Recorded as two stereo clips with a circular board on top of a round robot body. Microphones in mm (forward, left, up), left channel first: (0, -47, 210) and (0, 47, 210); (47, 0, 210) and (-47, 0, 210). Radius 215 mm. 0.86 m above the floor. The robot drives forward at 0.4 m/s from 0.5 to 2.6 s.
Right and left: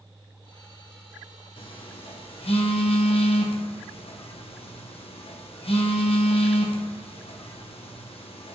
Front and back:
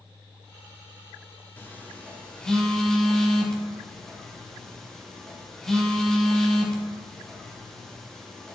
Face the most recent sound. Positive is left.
turn(degrees=-85)